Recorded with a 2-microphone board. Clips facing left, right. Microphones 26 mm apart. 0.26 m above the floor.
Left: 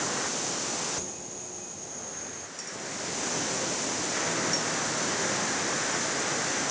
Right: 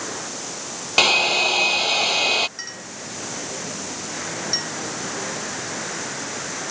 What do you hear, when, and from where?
1.0 s a hair dryer: 80° right
2.6 s a clink: 55° right (ahead or behind)